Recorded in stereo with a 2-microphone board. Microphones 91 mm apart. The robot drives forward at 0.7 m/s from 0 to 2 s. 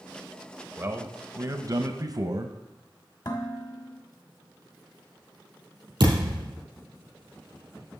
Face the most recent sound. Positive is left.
turn(degrees=-55)  # may be behind; listen again after turning